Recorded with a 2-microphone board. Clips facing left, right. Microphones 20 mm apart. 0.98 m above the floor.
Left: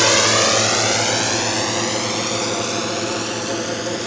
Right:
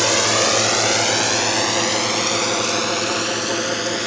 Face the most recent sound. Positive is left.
turn(degrees=-25)  # may be behind; listen again after turning